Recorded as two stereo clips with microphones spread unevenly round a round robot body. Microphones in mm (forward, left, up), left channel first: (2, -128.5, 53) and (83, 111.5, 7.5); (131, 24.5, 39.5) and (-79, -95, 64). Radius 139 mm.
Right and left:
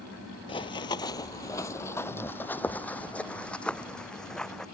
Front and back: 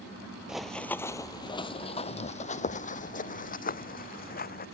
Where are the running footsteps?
75° right; by 4.7 s 25° right.